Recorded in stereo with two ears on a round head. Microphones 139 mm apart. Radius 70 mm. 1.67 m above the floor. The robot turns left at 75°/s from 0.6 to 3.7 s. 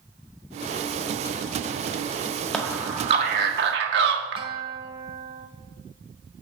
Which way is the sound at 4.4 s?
35° right (ahead or behind).